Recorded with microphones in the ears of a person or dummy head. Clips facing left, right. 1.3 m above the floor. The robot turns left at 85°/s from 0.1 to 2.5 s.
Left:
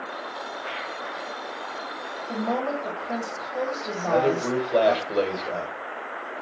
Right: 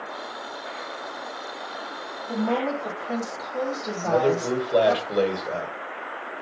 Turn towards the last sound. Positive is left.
turn(degrees=-5)  # may be behind; listen again after turning